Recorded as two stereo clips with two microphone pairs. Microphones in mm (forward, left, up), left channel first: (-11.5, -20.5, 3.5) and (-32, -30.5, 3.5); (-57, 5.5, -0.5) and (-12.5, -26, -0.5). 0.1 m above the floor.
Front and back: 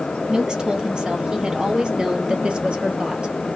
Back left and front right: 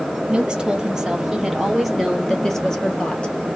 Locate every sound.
0.3 s a woman speaking: 110° right, 3 m; by 3.4 s 150° right, 2.5 m